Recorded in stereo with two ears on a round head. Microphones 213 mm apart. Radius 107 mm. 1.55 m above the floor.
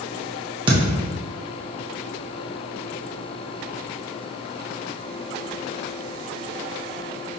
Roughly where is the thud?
Right.